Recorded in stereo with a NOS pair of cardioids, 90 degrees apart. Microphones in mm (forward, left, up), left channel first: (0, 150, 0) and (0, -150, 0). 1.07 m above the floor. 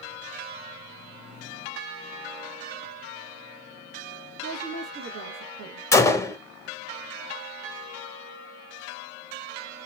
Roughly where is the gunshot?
Ahead.